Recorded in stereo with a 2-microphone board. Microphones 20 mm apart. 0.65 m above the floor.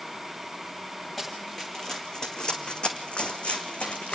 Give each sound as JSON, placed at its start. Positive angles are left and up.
{"t": 1.2, "sound": "running footsteps", "side_deg": 15, "distance_m": 3.0}